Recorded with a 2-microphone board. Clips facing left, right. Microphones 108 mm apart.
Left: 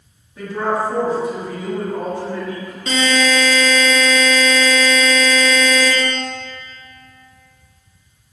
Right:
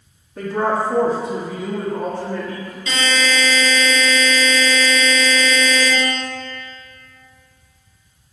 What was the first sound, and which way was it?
A woman speaking, 50° right (ahead or behind).